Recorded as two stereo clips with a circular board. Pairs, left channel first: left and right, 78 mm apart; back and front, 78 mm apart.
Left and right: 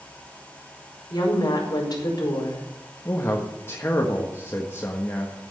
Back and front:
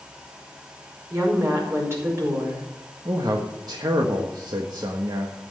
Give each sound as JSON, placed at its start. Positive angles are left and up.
{"t": 1.1, "sound": "a woman speaking", "azimuth_deg": 55, "distance_m": 5.0}
{"t": 3.0, "sound": "a man speaking", "azimuth_deg": 30, "distance_m": 1.5}